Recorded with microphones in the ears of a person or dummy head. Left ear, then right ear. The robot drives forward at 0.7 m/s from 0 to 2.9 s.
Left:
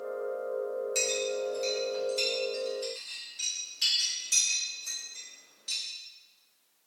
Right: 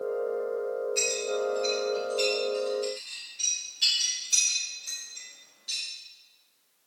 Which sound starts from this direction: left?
A clink, at 0.9 s.